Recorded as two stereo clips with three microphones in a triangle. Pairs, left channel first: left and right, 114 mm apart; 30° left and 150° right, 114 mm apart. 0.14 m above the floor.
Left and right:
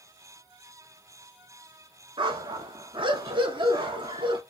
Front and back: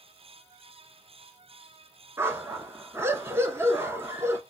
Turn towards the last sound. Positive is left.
turn(degrees=-90)